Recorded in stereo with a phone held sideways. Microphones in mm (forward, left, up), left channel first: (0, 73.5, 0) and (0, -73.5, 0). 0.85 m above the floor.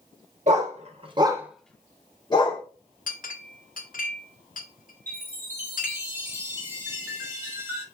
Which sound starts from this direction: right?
A dog barking, at 0.5 s.